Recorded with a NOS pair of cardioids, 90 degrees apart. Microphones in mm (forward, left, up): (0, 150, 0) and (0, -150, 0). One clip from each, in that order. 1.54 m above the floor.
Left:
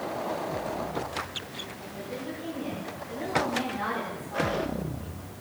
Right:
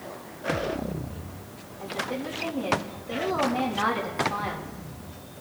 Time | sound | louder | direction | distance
1.8 | a woman speaking | right 6 dB | 65° right | 8.5 m